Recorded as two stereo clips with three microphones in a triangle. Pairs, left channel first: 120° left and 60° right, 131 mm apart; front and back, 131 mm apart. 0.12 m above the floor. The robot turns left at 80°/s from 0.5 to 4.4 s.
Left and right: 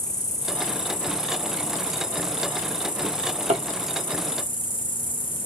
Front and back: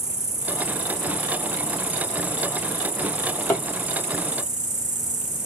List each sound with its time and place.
0.0 s an insect: 150° left, 1.7 m; by 5.5 s 165° right, 1.7 m
3.0 s a drawer: 40° right, 1.3 m; by 3.6 s 85° right, 1.3 m